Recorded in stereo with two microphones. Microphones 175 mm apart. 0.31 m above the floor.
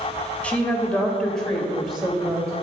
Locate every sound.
0.4 s a woman speaking: 5° left (ahead or behind), 1.2 m; by 2.5 s centre (ahead or behind), 1.4 m